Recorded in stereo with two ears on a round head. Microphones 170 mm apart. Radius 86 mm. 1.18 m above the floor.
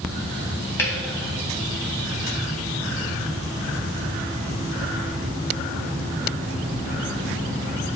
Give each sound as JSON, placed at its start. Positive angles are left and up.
{"t": 0.8, "sound": "dripping", "side_deg": 15, "distance_m": 3.0}